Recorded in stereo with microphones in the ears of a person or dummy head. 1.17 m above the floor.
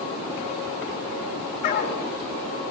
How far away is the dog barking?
About 6.5 m.